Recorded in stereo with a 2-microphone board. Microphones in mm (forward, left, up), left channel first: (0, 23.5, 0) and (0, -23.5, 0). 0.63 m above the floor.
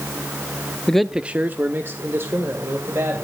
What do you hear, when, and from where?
0.9 s a man speaking: 15° left (ahead or behind), 0.5 m; by 3.2 s 65° right (ahead or behind), 2.5 m